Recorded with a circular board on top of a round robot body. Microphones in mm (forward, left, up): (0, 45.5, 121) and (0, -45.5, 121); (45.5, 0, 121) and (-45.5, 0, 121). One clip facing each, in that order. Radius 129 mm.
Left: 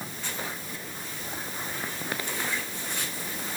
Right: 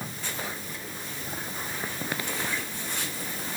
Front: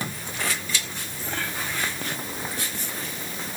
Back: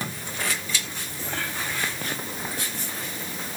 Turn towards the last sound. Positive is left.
No sound to turn to.